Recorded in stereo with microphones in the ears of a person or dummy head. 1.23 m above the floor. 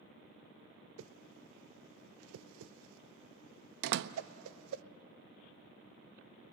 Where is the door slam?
60° right (ahead or behind), 0.7 m.